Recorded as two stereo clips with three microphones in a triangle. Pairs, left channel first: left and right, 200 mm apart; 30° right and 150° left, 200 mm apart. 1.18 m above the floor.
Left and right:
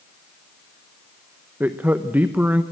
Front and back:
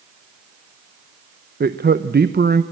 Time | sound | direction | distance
1.6 | a man speaking | 170° right | 0.8 m